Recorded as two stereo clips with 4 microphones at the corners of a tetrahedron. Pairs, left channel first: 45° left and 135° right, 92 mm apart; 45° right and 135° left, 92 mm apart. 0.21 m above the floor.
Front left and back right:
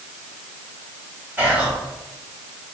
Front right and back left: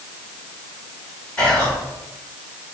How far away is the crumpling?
I don't hear crumpling.